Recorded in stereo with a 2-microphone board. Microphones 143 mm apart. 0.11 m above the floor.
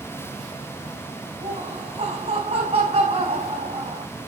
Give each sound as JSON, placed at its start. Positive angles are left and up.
{"t": 1.4, "sound": "laughter", "side_deg": -45, "distance_m": 6.0}